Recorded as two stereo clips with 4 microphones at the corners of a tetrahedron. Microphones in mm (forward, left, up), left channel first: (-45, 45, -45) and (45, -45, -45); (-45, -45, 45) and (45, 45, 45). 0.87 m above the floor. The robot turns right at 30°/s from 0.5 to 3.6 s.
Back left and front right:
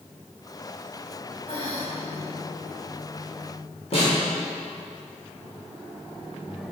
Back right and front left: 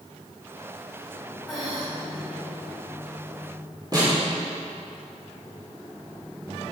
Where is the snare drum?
100° left, 2.5 m.